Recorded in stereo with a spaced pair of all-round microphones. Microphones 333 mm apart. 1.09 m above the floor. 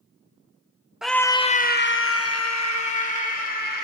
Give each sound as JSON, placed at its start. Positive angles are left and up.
{"t": 1.0, "sound": "a scream", "side_deg": 0, "distance_m": 0.7}